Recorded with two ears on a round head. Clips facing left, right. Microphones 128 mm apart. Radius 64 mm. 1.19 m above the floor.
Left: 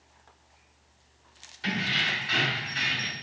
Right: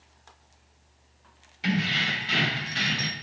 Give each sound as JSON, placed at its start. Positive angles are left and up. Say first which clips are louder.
{"t": 1.6, "sound": "keys jangling", "louder": "right 4 dB", "side_deg": -20, "distance_m": 1.3}